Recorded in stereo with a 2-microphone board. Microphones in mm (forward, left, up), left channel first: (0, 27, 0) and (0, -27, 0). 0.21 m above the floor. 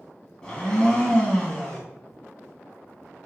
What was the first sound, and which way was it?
A blender, 15° left (ahead or behind).